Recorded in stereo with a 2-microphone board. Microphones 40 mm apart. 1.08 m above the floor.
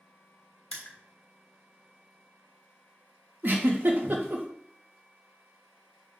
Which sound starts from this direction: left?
Crushing, at 0.7 s.